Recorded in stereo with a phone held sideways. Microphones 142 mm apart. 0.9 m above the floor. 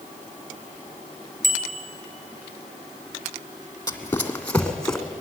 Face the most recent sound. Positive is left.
turn(degrees=5)  # may be behind; listen again after turning